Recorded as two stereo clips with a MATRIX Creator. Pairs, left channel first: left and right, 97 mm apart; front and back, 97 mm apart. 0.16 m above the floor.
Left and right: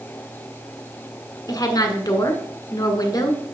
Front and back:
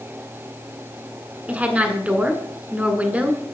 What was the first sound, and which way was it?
A woman speaking, 110° left.